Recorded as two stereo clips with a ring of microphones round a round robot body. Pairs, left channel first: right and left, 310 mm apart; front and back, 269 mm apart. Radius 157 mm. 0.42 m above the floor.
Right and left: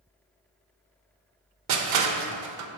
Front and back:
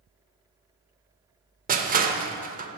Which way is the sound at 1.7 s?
120° left.